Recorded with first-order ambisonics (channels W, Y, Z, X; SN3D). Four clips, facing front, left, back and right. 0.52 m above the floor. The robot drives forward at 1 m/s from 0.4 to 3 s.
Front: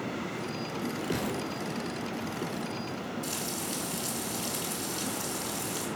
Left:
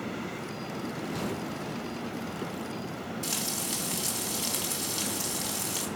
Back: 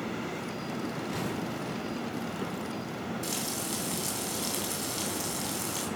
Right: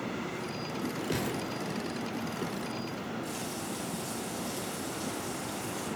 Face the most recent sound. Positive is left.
turn(degrees=110)